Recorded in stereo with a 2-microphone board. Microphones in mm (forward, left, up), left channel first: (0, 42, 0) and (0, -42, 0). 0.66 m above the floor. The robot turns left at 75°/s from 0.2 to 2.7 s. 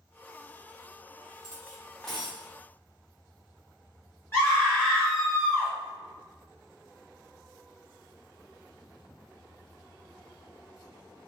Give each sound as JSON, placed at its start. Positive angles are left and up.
{"t": 1.4, "sound": "cutlery clinking", "azimuth_deg": 55, "distance_m": 0.7}
{"t": 4.3, "sound": "a scream", "side_deg": 30, "distance_m": 1.6}